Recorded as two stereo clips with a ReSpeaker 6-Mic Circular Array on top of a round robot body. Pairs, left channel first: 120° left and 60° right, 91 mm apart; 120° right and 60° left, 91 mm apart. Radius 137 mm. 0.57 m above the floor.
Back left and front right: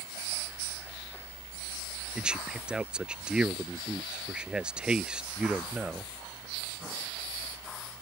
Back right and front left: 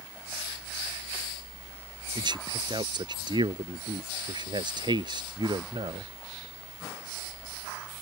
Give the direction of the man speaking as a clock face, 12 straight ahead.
11 o'clock.